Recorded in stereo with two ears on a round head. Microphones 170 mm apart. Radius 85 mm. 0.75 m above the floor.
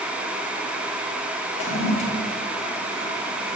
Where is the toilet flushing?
35° left (ahead or behind), 1.2 m.